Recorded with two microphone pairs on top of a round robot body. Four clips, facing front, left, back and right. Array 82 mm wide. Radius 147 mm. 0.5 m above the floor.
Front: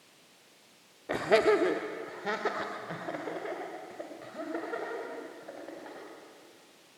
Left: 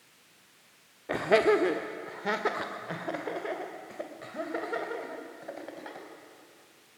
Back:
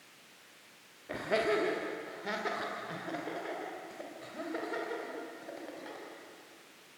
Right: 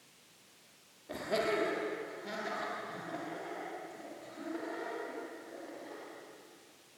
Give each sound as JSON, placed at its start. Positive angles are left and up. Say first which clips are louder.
{"t": 1.1, "sound": "laughter", "louder": "left 10 dB, front 7 dB", "azimuth_deg": 50, "distance_m": 1.6}